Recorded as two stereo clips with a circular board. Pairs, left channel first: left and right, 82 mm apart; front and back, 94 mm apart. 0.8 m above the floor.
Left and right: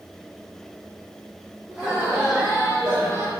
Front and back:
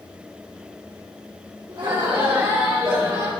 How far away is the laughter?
About 1.9 m.